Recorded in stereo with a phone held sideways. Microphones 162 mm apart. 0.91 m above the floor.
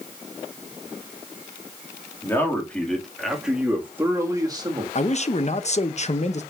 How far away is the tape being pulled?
I don't hear tape being pulled.